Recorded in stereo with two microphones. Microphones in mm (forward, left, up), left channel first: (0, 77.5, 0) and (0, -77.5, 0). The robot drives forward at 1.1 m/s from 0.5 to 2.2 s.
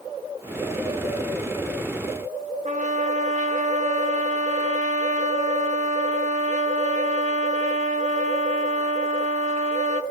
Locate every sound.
2.6 s a trumpet: 50° right (ahead or behind), 0.5 m